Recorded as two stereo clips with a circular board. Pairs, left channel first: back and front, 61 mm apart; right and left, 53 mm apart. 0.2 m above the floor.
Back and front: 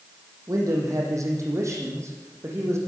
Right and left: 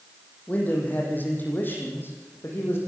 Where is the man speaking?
30° right, 7.5 m; by 2.8 s 45° right, 9 m.